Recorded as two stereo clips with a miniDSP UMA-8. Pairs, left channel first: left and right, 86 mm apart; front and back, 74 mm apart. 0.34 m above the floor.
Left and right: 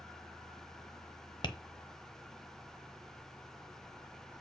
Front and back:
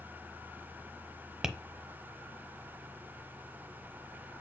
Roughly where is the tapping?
Left.